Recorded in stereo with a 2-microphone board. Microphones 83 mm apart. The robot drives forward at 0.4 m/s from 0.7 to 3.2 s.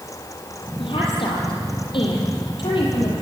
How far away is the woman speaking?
About 8.5 m.